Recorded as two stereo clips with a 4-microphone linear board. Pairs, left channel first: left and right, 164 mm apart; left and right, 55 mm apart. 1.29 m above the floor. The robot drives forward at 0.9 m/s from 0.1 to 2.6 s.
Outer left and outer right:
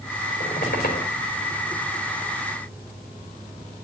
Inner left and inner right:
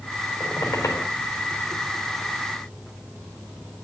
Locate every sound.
0.4 s a squeak: 75° left (ahead or behind), 3.5 m; by 1.1 s 85° left, 3.5 m